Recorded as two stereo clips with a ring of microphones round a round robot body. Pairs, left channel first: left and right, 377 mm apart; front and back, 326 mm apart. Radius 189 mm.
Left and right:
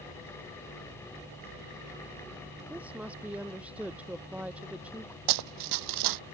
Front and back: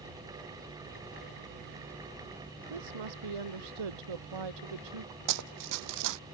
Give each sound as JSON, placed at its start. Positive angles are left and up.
{"t": 2.7, "sound": "a woman speaking", "azimuth_deg": -175}
{"t": 5.3, "sound": "running footsteps", "azimuth_deg": -130}